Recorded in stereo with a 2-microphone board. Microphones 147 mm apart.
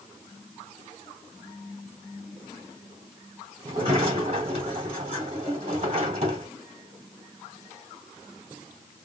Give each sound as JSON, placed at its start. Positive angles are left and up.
{"t": 3.6, "sound": "a sliding door", "side_deg": -50, "distance_m": 2.0}